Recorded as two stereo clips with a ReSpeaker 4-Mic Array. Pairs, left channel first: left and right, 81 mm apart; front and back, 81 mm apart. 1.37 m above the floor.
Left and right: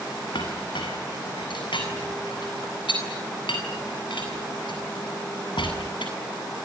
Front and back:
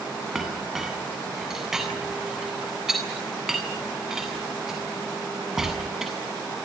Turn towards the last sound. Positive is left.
turn(degrees=95)